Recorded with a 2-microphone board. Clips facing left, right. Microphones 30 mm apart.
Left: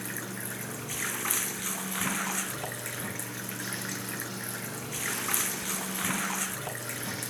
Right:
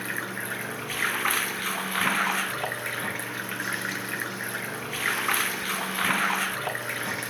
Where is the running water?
35° right (ahead or behind).